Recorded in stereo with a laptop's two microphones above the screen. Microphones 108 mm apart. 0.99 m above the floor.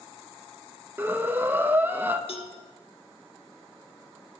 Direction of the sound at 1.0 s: 20° right (ahead or behind).